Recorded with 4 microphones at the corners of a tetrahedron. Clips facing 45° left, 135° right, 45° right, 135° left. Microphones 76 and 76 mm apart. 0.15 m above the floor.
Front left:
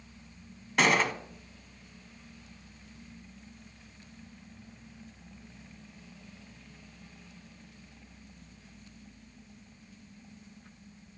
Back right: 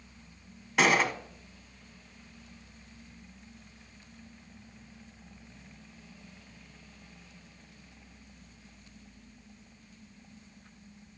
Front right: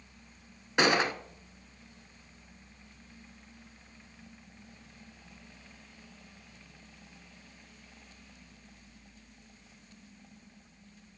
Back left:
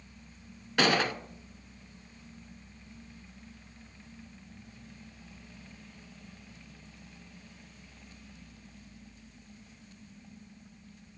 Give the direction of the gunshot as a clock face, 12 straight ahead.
2 o'clock.